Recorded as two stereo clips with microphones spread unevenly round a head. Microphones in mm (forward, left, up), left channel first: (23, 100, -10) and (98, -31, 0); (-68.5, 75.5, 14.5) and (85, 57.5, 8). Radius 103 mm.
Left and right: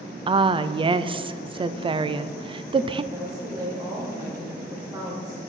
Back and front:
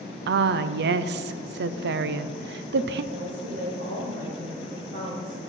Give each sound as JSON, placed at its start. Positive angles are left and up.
{"t": 0.3, "sound": "a woman speaking", "azimuth_deg": 0, "distance_m": 0.5}
{"t": 3.1, "sound": "a woman speaking", "azimuth_deg": 5, "distance_m": 2.0}